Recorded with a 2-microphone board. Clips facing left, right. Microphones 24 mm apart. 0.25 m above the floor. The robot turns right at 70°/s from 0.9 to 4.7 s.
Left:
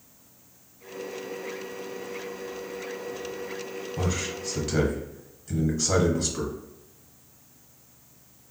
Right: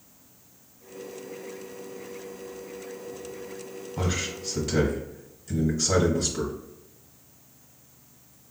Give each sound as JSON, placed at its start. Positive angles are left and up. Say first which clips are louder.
{"t": 4.0, "sound": "a man speaking", "louder": "right 1 dB", "side_deg": -20, "distance_m": 1.0}